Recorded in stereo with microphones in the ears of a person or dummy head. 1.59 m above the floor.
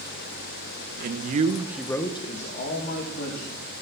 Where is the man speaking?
65° right (ahead or behind), 1.4 m; by 3.6 s 60° left (ahead or behind), 3 m.